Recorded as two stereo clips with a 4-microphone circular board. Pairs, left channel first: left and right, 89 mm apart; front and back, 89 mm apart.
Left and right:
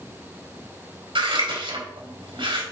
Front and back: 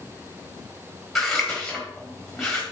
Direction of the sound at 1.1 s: 90° right.